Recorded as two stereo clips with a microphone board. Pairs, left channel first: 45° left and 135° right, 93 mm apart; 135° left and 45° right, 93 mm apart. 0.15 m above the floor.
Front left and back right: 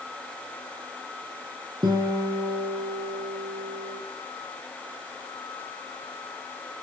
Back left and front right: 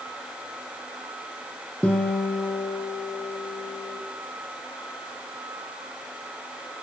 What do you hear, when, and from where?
1.8 s a guitar: 150° right, 2.5 m